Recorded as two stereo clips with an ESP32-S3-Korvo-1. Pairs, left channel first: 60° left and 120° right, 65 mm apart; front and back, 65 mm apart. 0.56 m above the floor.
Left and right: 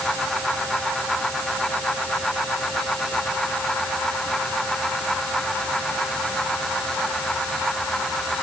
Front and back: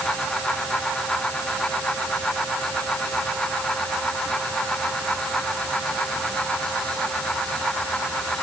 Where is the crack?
No crack in this recording.